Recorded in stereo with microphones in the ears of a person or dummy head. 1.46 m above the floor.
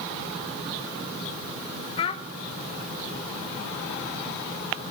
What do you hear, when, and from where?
2.0 s a child speaking: 30° left (ahead or behind), 0.6 m